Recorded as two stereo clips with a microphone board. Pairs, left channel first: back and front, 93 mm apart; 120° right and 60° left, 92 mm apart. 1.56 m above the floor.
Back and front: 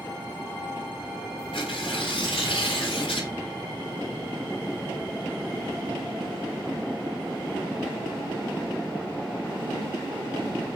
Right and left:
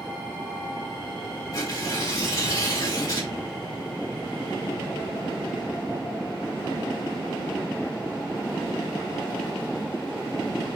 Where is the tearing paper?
170° right, 3.5 m.